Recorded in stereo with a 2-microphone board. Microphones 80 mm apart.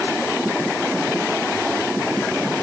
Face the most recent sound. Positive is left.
No sound to turn to.